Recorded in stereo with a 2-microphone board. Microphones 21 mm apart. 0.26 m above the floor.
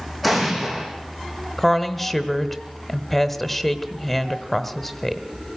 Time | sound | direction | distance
0.2 | an explosion | centre (ahead or behind) | 5 m
1.6 | a woman speaking | 5° left (ahead or behind) | 1.0 m